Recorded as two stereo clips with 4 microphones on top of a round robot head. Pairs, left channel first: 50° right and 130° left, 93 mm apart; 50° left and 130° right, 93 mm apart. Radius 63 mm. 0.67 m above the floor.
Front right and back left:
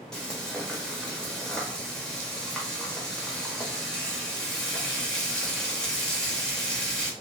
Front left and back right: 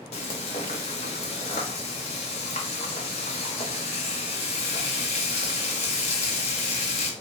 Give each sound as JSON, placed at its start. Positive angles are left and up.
{"t": 0.1, "sound": "frying", "azimuth_deg": 30, "distance_m": 0.5}